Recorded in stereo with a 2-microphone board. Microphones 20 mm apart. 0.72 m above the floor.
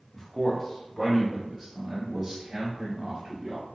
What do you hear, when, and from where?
0.1 s a man speaking: 25° left (ahead or behind), 1.0 m; by 3.7 s 15° right (ahead or behind), 1.6 m